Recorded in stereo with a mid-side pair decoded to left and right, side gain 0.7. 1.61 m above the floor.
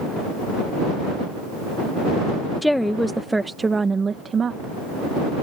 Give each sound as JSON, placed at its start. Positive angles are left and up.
{"t": 2.6, "sound": "a woman speaking", "azimuth_deg": 5}